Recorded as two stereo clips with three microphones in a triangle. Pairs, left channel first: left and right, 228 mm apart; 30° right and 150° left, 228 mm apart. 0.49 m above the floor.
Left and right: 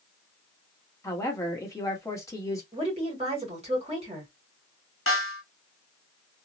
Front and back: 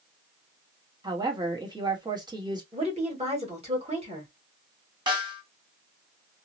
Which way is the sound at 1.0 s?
135° left.